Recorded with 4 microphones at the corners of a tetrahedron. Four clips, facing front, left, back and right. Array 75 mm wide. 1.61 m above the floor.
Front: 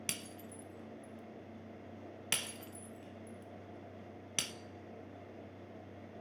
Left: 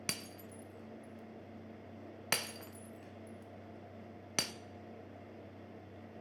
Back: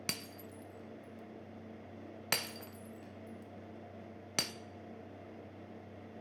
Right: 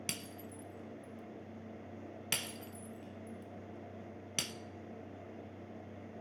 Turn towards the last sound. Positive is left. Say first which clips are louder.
# left 4 dB, back 3 dB
turn(degrees=130)